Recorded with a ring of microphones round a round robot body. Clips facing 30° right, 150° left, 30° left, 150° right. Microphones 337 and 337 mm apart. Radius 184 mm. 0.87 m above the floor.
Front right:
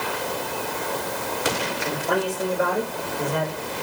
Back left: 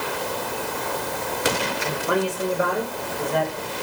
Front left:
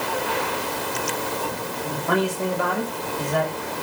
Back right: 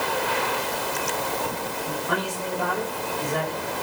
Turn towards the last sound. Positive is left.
turn(degrees=45)